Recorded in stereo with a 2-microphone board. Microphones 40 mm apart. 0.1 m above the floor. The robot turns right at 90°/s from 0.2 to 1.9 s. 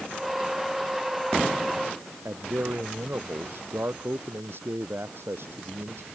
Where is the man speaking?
65° right (ahead or behind).